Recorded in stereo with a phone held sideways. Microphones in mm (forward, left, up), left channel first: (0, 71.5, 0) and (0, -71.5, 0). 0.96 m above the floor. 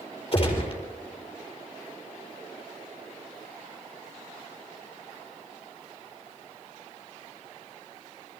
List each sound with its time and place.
0.3 s a gunshot: 45° left (ahead or behind), 4.5 m